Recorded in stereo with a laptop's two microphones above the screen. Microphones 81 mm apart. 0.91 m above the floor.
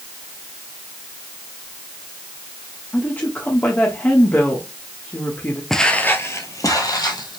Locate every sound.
2.9 s a woman speaking: 25° left (ahead or behind), 1.2 m
5.7 s footsteps: 5° left (ahead or behind), 0.9 m; by 7.4 s 60° left (ahead or behind), 1.8 m